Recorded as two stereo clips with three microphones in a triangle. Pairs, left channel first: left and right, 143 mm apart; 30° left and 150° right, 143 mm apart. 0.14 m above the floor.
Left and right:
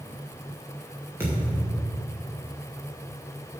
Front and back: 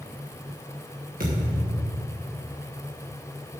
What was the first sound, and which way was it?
A thud, 165° right.